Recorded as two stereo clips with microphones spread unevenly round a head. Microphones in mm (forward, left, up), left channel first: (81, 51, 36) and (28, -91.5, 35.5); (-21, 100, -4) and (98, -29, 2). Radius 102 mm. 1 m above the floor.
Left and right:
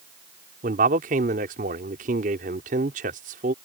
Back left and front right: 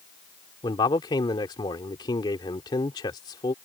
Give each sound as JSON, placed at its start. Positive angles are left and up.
{"t": 0.6, "sound": "a man speaking", "azimuth_deg": -155}